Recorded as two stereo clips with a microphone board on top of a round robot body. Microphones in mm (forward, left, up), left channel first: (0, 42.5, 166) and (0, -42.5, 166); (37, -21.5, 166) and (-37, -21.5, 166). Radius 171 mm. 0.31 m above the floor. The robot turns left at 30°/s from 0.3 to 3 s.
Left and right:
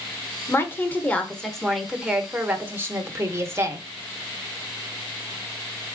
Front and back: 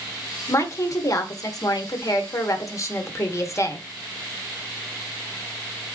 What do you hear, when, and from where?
0.5 s a woman speaking: 40° left, 1.2 m; by 3.9 s 40° right, 1.2 m